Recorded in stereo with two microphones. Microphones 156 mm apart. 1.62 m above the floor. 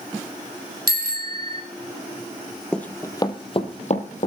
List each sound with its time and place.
0.9 s a bicycle bell: 80° right, 4 m
2.7 s running footsteps: 5° left (ahead or behind), 1.8 m; by 4.3 s 55° left (ahead or behind), 2.5 m